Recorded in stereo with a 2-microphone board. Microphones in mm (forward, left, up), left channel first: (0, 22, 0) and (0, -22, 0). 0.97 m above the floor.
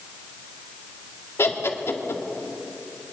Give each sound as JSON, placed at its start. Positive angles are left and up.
{"t": 1.4, "sound": "laughter", "side_deg": 70, "distance_m": 1.9}